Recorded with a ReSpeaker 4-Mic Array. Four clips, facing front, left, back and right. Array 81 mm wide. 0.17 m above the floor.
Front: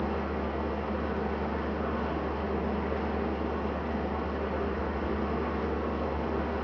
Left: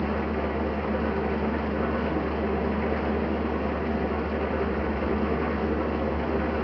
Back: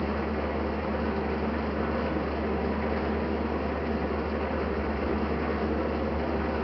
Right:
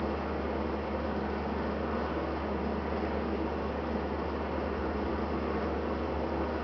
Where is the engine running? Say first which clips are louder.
Left 6 dB, back 2 dB; 115° left, 3 m.